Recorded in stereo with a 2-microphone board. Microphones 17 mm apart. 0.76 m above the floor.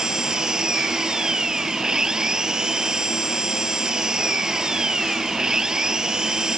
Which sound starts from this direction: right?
An engine running, at 0.0 s.